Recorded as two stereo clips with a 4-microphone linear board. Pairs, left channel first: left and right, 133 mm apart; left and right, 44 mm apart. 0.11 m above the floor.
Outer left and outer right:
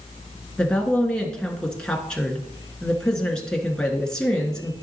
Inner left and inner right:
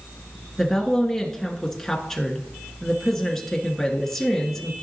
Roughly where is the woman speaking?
Centre.